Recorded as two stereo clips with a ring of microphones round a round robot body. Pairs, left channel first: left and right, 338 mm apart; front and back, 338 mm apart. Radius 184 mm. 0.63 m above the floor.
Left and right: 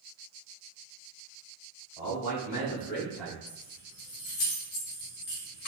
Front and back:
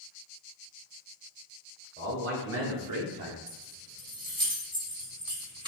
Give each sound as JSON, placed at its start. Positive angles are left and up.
{"t": 2.0, "sound": "a man speaking", "azimuth_deg": 120, "distance_m": 2.0}
{"t": 3.5, "sound": "keys jangling", "azimuth_deg": 105, "distance_m": 2.0}